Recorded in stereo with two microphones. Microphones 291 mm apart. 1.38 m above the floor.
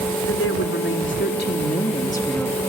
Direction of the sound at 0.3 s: 50° left (ahead or behind).